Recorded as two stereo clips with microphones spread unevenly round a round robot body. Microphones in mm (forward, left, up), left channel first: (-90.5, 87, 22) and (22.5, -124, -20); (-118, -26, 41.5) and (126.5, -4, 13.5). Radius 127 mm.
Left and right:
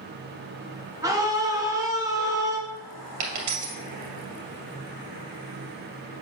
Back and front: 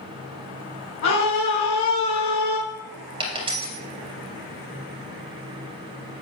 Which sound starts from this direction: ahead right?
A dropped coin, at 3.2 s.